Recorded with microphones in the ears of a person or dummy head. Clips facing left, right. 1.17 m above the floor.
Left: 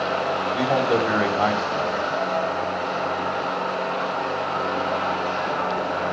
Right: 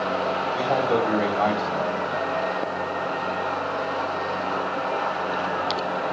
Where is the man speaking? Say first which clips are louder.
Left 2 dB; 15° left (ahead or behind), 3.5 m.